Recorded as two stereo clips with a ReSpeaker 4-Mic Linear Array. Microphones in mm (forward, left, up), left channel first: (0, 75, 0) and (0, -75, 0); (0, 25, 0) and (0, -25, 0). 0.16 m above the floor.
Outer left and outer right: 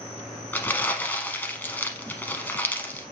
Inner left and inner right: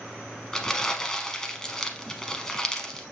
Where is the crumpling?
10° left (ahead or behind), 0.8 m.